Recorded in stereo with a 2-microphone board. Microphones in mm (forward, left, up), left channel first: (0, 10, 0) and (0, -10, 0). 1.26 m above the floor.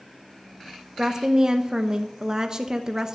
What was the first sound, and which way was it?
A woman speaking, 25° right (ahead or behind).